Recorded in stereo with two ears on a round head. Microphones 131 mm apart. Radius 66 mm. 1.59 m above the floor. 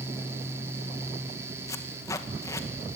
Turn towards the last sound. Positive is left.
turn(degrees=20)  # may be behind; listen again after turning